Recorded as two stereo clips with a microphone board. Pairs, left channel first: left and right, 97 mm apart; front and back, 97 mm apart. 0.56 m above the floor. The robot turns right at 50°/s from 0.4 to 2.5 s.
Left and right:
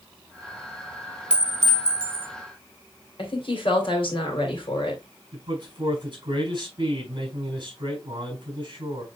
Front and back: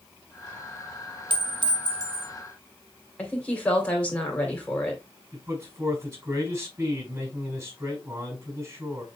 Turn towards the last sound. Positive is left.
turn(degrees=-125)